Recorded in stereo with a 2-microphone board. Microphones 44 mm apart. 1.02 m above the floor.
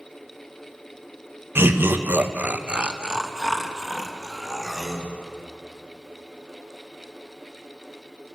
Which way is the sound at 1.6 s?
65° right (ahead or behind).